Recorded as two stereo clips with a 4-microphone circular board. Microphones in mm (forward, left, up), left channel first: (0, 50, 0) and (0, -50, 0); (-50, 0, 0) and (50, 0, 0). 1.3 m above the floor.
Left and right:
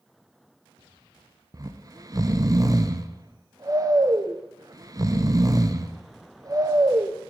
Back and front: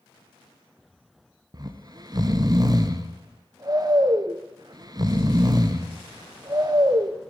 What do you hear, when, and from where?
1.5 s snoring: 40° right, 0.7 m